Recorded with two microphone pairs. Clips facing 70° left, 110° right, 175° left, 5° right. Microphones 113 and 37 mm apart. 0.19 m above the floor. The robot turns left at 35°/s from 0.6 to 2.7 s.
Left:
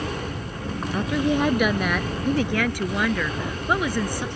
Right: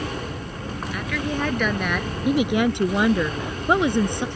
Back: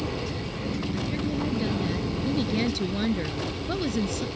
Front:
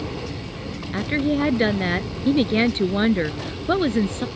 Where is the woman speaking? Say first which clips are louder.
Left 5 dB, front 7 dB; 20° left; by 4.3 s 45° right.